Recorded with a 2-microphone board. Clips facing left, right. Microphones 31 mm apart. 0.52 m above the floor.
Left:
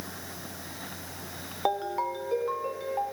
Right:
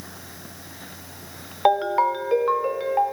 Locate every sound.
1.6 s a ringtone: 45° right (ahead or behind), 0.7 m